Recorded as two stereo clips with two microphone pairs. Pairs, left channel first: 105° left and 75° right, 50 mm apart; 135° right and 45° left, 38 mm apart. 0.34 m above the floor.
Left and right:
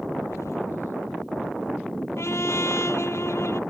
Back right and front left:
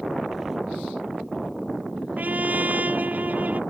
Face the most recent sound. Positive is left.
turn(degrees=85)